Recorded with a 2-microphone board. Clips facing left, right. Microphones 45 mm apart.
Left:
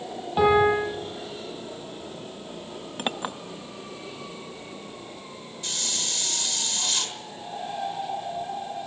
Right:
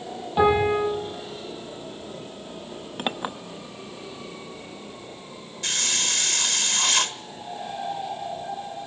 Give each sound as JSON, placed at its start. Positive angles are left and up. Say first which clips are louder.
{"t": 0.4, "sound": "a piano", "louder": "even", "side_deg": 0, "distance_m": 8.5}
{"t": 3.0, "sound": "a clink", "louder": "right 1 dB", "side_deg": -5, "distance_m": 0.7}
{"t": 5.6, "sound": "a hiss", "louder": "right 6 dB", "side_deg": -65, "distance_m": 1.1}